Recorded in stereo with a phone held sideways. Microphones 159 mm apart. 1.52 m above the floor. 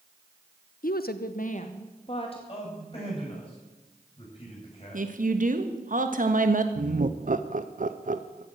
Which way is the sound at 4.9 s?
60° right (ahead or behind).